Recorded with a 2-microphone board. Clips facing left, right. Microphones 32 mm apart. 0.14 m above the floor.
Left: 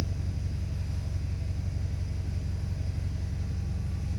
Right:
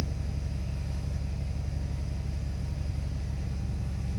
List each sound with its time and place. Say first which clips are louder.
0.0 s an engine running: even; 75° right (ahead or behind), 0.8 m